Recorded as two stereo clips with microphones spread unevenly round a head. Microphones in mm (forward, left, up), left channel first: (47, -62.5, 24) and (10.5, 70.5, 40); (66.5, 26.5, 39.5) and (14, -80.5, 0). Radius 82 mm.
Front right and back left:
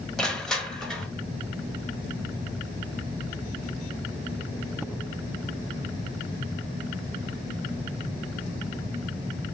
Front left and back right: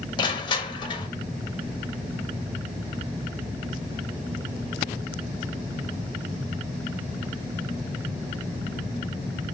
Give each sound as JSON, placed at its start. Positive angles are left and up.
{"t": 0.2, "sound": "crushing", "azimuth_deg": 10, "distance_m": 0.9}